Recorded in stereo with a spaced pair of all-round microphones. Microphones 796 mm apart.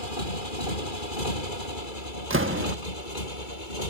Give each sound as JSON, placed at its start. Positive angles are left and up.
{"t": 0.0, "sound": "a motorcycle", "side_deg": 75}
{"t": 2.3, "sound": "a door slam", "side_deg": -15}